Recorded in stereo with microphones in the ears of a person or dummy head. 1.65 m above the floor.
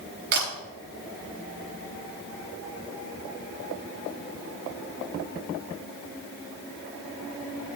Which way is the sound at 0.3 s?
50° right (ahead or behind).